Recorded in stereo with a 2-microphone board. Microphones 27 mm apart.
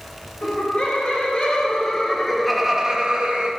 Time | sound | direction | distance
0.4 | laughter | 50° left (ahead or behind) | 2.5 m